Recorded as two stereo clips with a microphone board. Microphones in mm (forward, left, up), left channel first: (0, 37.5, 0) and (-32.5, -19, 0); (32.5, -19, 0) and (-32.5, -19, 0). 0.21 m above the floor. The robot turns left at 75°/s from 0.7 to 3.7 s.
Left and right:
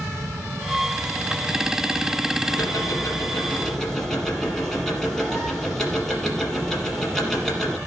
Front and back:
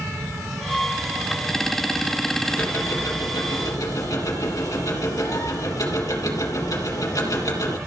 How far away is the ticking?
About 3.5 m.